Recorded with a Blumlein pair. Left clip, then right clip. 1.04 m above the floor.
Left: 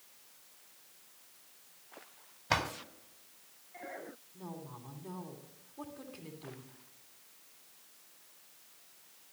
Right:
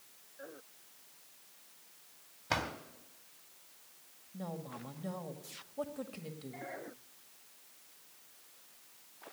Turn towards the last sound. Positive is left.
turn(degrees=-55)